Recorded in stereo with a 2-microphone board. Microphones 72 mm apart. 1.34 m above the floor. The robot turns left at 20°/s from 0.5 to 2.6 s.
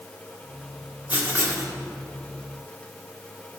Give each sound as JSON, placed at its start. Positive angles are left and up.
{"t": 1.1, "sound": "writing", "side_deg": -25, "distance_m": 2.0}